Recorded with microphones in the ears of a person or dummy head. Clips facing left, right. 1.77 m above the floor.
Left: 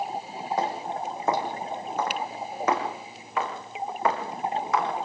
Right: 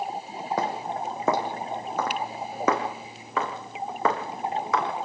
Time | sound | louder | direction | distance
0.6 | footsteps | even | 65° right (ahead or behind) | 5 m